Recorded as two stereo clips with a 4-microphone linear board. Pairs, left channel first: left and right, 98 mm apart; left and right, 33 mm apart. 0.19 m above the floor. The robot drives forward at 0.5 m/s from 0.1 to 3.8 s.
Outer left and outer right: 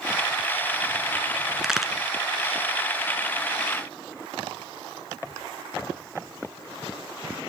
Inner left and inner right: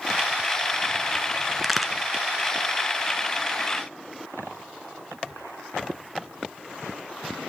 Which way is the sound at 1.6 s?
5° right (ahead or behind).